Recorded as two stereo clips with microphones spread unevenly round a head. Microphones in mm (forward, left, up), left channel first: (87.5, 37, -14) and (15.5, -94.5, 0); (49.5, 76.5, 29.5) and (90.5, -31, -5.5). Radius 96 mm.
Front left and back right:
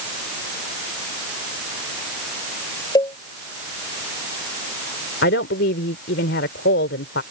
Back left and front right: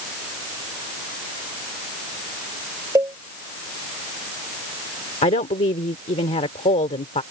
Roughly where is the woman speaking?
Left.